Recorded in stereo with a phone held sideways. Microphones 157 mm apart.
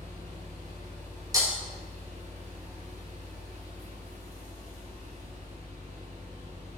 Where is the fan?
50° right (ahead or behind), 1.4 m.